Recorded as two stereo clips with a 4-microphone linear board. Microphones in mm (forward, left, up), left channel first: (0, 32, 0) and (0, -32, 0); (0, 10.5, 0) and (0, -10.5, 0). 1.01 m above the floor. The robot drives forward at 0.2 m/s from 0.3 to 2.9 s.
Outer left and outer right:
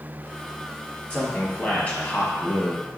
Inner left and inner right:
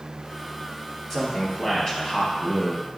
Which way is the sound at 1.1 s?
25° left (ahead or behind).